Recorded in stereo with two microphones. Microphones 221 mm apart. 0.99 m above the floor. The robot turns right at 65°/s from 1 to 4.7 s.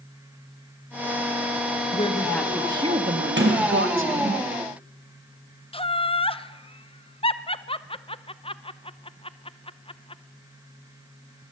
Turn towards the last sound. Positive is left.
turn(degrees=25)  # may be behind; listen again after turning